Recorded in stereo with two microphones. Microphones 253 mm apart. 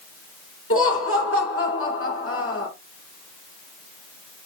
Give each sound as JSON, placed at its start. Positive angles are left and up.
{"t": 0.7, "sound": "laughter", "side_deg": 60, "distance_m": 2.5}